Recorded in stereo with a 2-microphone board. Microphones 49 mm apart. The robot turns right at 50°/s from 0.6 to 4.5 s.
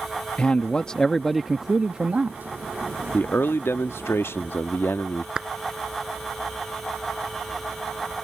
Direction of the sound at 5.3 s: 15° right (ahead or behind).